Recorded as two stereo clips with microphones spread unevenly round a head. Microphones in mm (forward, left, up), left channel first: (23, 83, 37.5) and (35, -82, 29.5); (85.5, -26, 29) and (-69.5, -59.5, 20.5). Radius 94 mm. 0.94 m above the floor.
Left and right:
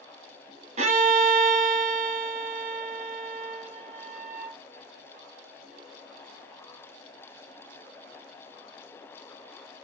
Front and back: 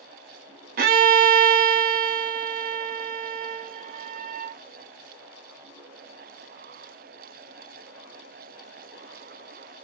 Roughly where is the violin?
Behind right.